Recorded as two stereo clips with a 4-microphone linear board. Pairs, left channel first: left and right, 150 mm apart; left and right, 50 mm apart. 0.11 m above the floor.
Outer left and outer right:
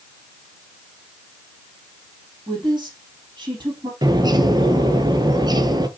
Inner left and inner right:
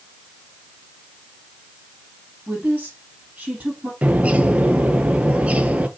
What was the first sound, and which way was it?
A woman speaking, 30° right (ahead or behind).